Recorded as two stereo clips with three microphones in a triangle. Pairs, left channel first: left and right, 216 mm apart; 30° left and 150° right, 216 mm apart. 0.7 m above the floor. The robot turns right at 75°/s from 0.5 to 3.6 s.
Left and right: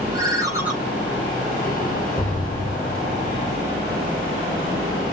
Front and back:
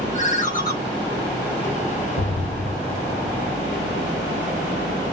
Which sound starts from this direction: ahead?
A ringtone, at 0.1 s.